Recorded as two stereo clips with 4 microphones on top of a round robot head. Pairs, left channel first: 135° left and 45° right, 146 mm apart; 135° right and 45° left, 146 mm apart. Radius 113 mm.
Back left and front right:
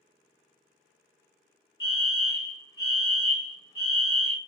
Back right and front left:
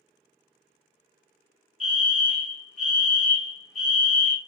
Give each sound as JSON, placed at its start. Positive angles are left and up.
{"t": 1.8, "sound": "a fire alarm", "azimuth_deg": 140, "distance_m": 1.5}